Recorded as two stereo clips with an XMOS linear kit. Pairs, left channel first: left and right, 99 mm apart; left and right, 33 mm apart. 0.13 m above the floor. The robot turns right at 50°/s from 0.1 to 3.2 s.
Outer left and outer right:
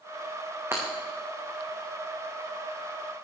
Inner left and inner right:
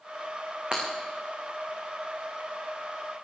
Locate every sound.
0.7 s breaking glass: 25° right (ahead or behind), 4.5 m; by 0.8 s 30° right (ahead or behind), 4.5 m